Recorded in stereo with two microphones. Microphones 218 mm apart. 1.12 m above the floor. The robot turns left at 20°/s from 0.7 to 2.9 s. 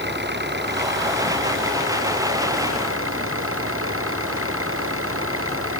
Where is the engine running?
55° right; by 5.8 s 95° right.